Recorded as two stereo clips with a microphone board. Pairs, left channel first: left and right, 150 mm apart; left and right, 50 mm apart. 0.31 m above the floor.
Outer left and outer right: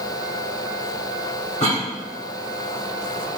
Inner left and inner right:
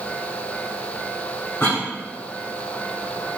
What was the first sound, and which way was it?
A cough, 50° left (ahead or behind).